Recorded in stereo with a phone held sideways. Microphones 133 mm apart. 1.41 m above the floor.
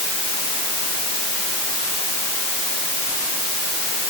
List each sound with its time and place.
Only background noise.